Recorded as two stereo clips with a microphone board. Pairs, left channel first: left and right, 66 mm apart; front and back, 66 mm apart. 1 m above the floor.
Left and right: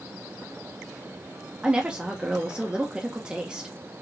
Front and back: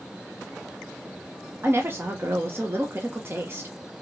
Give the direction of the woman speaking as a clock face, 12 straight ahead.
5 o'clock.